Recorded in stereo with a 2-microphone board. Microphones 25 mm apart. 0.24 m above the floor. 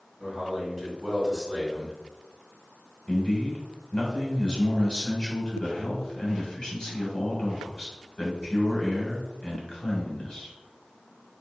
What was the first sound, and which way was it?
A man speaking, 5° right (ahead or behind).